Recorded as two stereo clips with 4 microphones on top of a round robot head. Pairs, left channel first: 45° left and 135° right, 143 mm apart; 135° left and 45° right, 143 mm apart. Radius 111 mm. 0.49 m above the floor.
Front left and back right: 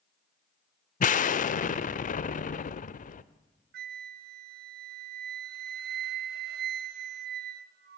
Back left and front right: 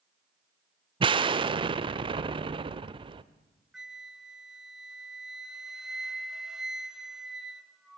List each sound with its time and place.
1.0 s an explosion: 10° left, 0.7 m
3.7 s a flute: 130° right, 0.5 m